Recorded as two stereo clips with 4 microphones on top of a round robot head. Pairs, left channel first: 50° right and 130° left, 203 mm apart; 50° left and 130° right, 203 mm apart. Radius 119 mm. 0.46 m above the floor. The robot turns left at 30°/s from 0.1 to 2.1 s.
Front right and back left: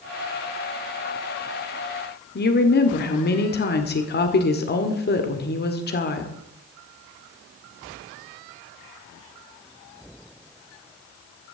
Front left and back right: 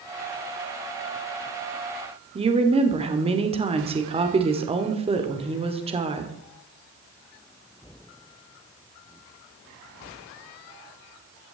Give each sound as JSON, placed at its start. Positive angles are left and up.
{"t": 2.4, "sound": "a woman speaking", "azimuth_deg": -70, "distance_m": 1.8}